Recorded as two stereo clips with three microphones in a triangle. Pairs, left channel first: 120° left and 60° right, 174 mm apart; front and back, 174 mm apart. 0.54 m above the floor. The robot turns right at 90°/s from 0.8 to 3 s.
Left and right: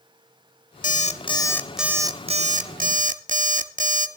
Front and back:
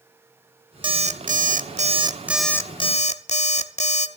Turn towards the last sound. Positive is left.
turn(degrees=-35)